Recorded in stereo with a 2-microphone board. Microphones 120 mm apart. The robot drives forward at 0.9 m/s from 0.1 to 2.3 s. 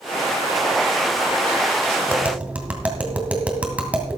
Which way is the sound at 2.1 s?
10° right (ahead or behind).